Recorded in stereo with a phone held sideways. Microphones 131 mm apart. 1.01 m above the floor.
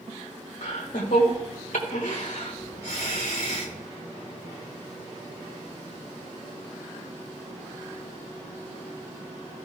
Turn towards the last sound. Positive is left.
turn(degrees=85)